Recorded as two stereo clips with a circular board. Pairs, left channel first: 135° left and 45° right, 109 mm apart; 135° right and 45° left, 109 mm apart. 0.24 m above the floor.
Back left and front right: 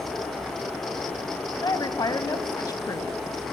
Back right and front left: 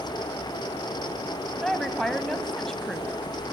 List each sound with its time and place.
1.6 s a woman speaking: 140° left, 1.3 m